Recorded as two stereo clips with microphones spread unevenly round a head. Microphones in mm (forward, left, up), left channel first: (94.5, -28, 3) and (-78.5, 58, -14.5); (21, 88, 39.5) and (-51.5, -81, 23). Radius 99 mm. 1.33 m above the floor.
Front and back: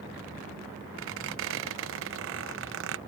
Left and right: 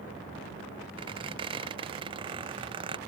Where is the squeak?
Straight behind.